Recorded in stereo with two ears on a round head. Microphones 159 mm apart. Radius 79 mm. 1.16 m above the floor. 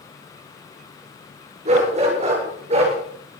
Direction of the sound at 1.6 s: 40° right (ahead or behind).